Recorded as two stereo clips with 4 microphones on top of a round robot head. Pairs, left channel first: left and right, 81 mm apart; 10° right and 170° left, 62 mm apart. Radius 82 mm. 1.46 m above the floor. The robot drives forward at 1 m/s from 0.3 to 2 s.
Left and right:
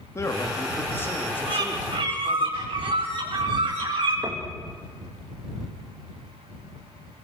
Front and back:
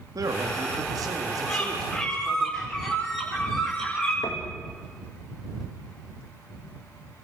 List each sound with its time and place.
0.1 s a man speaking: 145° left, 2.5 m; by 2.5 s 160° left, 4 m
1.5 s a bird: 85° right, 7.5 m; by 4.1 s 90° right, 7.5 m
4.2 s knocking: 40° right, 2.5 m